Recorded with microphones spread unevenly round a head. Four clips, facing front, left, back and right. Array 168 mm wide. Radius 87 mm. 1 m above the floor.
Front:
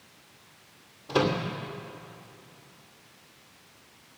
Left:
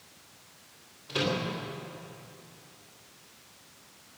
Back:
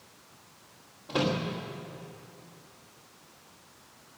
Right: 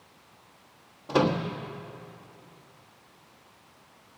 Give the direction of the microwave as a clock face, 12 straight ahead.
3 o'clock.